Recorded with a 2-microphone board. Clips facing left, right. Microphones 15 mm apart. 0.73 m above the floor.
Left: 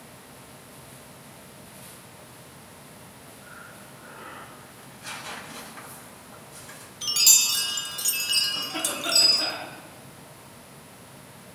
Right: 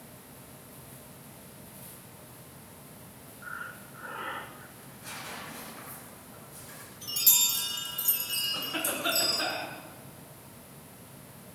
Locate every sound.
3.4 s breathing: 50° right (ahead or behind), 1.4 m
4.8 s tearing paper: 40° left (ahead or behind), 6 m
7.0 s a chime: 60° left (ahead or behind), 1.3 m
8.5 s a cough: 15° right (ahead or behind), 8 m